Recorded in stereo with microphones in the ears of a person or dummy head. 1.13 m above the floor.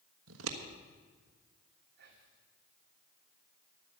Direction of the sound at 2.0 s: 60° right (ahead or behind).